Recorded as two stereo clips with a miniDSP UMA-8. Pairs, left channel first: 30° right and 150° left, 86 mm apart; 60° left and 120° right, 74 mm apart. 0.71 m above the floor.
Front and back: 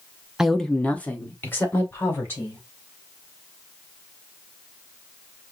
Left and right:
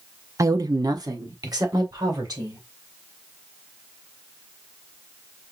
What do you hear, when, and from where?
0.4 s a woman speaking: 130° right, 0.6 m; by 2.6 s 90° right, 3.5 m